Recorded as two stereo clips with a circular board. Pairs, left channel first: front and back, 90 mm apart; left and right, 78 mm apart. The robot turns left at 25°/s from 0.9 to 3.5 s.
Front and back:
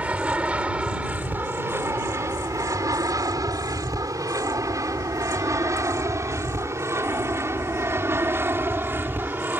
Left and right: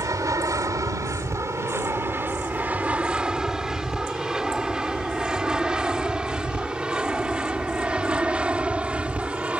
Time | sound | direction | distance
0.0 | an aircraft | 110° right | ?